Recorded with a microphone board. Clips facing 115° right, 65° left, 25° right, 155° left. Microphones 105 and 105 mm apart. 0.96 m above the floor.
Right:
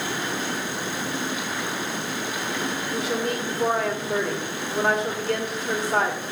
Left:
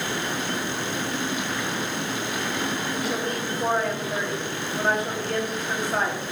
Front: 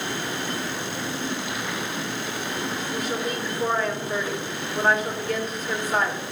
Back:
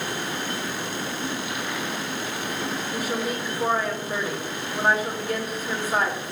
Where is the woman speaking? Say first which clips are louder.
Right 1 dB, even; 120° right, 2 m.